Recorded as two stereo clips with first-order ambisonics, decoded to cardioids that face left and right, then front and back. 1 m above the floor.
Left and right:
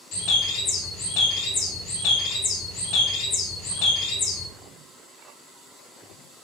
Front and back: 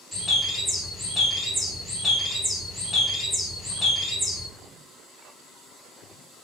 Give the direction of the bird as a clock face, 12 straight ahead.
9 o'clock.